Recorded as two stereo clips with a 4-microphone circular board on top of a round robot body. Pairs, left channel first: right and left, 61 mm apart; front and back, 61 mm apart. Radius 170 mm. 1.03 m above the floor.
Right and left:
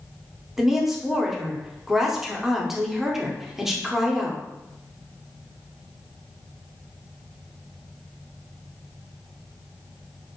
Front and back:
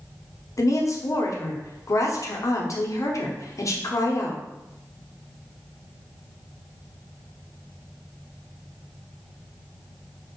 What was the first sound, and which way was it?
A woman speaking, 5° left.